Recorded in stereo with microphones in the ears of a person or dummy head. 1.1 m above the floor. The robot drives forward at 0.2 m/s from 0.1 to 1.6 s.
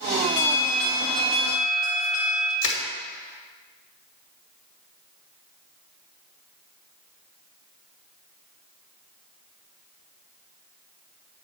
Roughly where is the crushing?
Left.